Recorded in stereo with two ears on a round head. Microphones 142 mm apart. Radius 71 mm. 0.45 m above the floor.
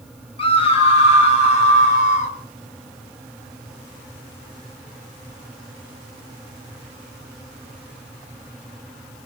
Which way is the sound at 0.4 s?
35° left (ahead or behind).